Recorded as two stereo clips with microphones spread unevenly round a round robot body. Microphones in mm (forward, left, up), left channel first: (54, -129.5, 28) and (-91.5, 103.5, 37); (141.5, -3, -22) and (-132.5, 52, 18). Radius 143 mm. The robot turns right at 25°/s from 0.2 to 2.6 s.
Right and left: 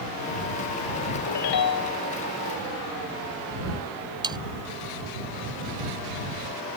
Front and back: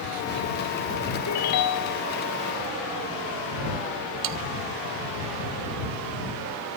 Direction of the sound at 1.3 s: 40° right.